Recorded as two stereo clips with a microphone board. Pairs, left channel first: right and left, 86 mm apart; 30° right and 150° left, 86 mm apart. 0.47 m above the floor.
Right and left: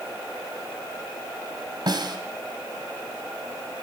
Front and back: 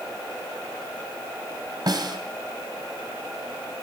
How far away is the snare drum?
About 2 m.